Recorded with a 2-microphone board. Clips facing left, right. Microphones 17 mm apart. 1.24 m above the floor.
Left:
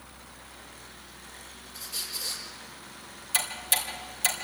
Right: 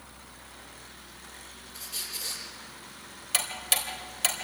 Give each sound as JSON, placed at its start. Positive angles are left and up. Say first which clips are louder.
{"t": 1.7, "sound": "a squeak", "louder": "left 2 dB", "side_deg": -10, "distance_m": 6.5}
{"t": 3.3, "sound": "ticking", "louder": "even", "side_deg": -25, "distance_m": 3.5}